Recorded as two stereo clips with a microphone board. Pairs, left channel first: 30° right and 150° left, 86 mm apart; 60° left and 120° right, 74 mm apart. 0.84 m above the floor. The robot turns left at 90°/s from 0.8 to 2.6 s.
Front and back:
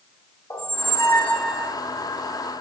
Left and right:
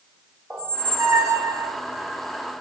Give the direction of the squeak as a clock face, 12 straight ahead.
2 o'clock.